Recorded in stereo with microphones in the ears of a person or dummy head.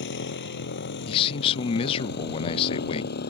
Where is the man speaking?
30° left (ahead or behind).